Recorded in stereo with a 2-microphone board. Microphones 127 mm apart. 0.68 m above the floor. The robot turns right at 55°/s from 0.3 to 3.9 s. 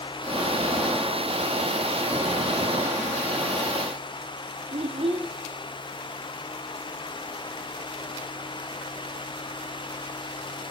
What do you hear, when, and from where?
4.7 s a child speaking: 50° right (ahead or behind), 1.1 m